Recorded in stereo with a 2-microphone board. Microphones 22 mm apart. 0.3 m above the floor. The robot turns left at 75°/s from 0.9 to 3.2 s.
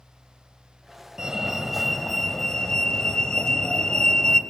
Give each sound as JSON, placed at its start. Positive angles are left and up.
{"t": 1.2, "sound": "a fire alarm", "azimuth_deg": -120, "distance_m": 2.5}